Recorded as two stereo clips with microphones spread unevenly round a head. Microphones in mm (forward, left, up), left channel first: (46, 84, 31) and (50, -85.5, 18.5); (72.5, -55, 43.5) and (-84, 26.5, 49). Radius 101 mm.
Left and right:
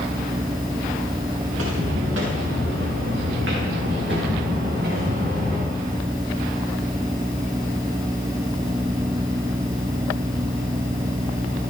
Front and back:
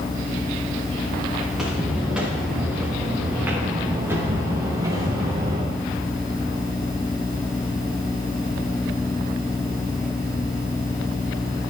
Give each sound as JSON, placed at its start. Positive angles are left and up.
{"t": 1.5, "sound": "footsteps", "azimuth_deg": -120, "distance_m": 6.0}